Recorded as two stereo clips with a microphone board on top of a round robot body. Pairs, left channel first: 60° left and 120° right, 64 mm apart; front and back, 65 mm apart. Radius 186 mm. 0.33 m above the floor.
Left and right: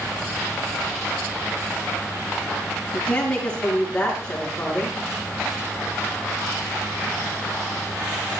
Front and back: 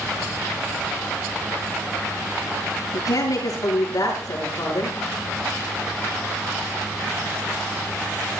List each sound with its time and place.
2.9 s a woman speaking: 15° right, 8 m